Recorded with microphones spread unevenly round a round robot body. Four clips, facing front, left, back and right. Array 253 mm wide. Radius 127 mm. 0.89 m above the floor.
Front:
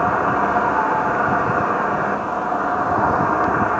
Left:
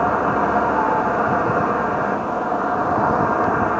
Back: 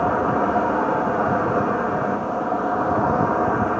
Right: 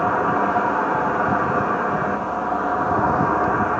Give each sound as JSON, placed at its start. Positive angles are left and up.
{"t": 0.0, "sound": "an insect", "azimuth_deg": 140, "distance_m": 1.2}